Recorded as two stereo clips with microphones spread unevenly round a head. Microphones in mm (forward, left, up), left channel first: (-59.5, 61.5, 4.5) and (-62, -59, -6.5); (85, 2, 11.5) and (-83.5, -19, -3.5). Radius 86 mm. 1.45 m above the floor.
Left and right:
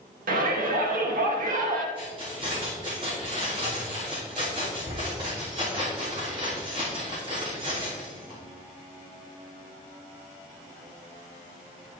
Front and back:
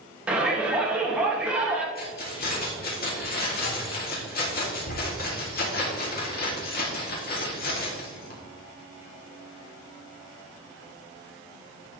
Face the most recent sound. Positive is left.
turn(degrees=-30)